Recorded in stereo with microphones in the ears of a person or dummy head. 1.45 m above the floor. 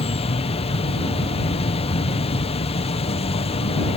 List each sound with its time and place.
0.0 s an insect: 30° left (ahead or behind)